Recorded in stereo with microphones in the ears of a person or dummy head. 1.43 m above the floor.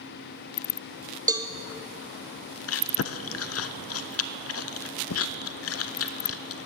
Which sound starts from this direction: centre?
A cowbell, at 1.3 s.